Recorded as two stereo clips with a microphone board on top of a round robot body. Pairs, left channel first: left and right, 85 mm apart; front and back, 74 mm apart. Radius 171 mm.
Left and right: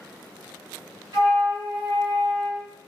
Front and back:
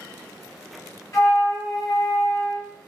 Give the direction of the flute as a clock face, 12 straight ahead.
1 o'clock.